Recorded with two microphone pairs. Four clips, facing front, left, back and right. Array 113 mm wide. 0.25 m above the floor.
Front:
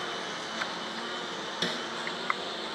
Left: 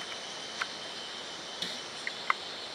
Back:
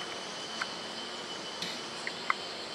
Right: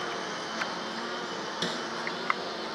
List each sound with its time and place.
0.0 s a lawn mower: 70° right; by 2.8 s 65° right
1.6 s a snare drum: 45° right